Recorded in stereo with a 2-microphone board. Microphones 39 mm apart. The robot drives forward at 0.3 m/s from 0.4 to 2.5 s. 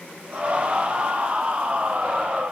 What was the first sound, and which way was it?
Only background noise.